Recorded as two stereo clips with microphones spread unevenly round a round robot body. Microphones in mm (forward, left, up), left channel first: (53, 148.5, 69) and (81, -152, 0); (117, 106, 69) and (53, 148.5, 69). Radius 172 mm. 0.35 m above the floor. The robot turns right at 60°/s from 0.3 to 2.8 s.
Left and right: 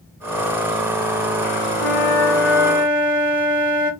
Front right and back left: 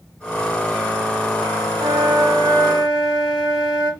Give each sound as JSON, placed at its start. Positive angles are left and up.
{"t": 1.8, "sound": "a flute", "azimuth_deg": 140, "distance_m": 3.0}